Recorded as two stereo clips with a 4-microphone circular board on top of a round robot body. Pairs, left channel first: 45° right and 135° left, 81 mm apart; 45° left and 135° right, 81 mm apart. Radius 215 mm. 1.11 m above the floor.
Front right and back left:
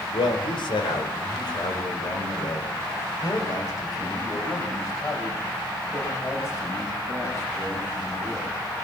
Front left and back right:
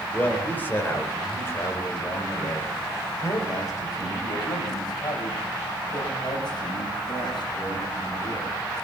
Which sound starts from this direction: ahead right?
A man speaking, at 0.1 s.